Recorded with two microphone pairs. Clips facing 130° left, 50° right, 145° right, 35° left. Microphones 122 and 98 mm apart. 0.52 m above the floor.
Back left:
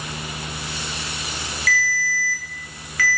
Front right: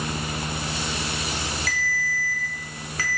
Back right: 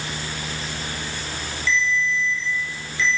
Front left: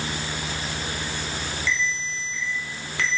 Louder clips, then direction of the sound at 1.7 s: Back left 4 dB, back right 8 dB; 5° left.